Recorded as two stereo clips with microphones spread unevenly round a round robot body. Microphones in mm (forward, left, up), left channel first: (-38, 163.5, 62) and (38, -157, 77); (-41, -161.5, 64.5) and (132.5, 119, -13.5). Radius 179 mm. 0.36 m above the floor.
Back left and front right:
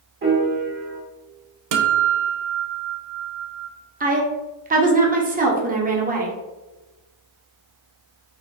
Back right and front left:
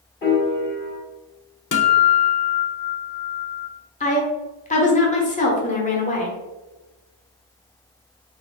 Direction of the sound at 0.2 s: 70° right.